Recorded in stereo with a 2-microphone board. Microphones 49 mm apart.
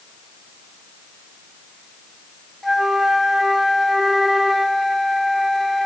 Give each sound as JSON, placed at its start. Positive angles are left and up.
{"t": 2.6, "sound": "a flute", "side_deg": 0, "distance_m": 0.5}